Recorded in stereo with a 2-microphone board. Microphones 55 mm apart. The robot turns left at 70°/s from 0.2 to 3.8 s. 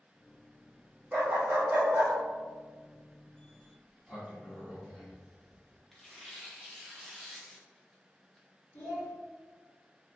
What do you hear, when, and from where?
1.1 s a dog barking: 45° right, 1.2 m; by 2.1 s 120° right, 1.2 m
3.6 s a sliding door: 15° right (ahead or behind), 0.9 m; by 5.8 s 5° right (ahead or behind), 0.9 m
5.9 s tearing paper: 5° left (ahead or behind), 0.5 m
8.7 s a child speaking: 65° left (ahead or behind), 1.4 m